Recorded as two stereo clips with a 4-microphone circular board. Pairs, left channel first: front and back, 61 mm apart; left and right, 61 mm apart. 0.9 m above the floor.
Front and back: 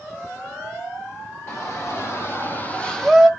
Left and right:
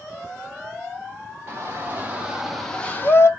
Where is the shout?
40° right, 1.8 m; by 3.3 s 95° left, 1.1 m.